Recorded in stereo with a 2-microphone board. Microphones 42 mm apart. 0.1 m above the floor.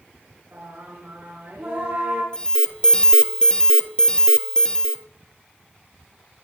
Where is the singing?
55° right (ahead or behind), 6 m.